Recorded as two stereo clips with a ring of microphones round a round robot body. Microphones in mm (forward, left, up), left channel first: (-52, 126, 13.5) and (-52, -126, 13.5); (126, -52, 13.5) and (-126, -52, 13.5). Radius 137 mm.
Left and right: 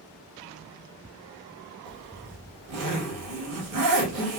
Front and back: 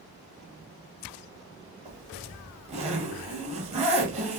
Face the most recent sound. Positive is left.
turn(degrees=-115)